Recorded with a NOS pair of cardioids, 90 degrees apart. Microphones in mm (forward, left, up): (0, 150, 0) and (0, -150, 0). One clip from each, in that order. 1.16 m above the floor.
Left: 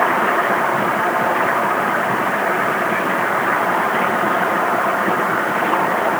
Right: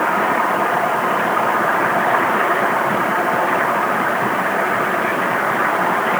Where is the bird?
No bird in this recording.